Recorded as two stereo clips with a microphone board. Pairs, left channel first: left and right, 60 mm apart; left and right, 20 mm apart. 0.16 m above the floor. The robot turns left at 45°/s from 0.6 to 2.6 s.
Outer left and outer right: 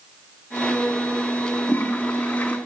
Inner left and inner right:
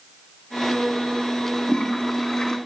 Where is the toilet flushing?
95° left, 1.8 m; by 2.6 s 50° left, 1.8 m.